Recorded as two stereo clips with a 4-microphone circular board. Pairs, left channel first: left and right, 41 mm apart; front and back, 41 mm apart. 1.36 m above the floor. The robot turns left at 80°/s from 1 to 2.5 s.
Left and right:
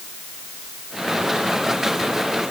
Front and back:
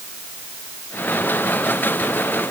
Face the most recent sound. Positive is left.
No sound to turn to.